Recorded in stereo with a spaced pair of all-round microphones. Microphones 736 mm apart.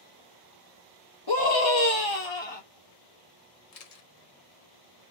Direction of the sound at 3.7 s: 55° left (ahead or behind).